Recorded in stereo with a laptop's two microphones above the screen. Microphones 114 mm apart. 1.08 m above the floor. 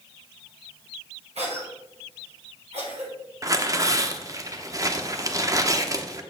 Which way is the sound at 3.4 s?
30° right (ahead or behind).